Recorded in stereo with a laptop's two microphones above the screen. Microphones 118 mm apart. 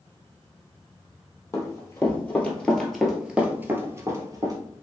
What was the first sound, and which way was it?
Running footsteps, 30° left (ahead or behind).